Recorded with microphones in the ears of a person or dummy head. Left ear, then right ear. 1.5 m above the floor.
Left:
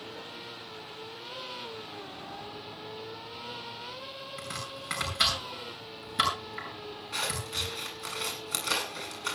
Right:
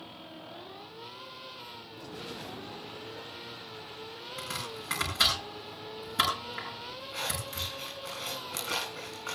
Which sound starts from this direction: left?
Scissors, at 7.1 s.